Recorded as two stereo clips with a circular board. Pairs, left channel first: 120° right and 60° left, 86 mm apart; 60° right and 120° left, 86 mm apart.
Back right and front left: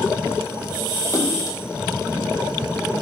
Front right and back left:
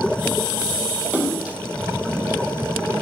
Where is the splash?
165° right, 2.5 m.